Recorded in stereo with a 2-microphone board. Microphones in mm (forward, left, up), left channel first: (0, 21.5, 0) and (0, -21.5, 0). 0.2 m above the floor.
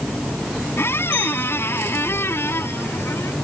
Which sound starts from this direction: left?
A squeak, at 0.8 s.